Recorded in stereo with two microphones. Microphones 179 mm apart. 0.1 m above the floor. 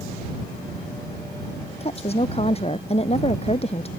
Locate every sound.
1.8 s a woman speaking: 35° left (ahead or behind)